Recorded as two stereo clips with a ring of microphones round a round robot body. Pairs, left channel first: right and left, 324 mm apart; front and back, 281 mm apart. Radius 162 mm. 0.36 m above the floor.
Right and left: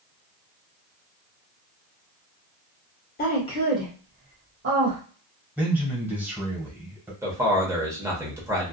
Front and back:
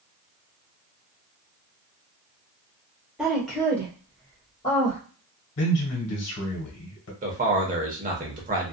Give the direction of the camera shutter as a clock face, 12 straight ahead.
I don't hear a camera shutter.